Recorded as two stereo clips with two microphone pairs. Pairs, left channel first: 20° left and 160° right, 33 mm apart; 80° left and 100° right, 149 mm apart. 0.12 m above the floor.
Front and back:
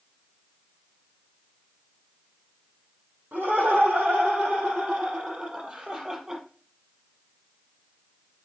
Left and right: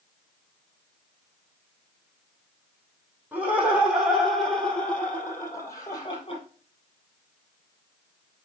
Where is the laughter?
175° right, 5.5 m; by 6.4 s 130° left, 3.5 m.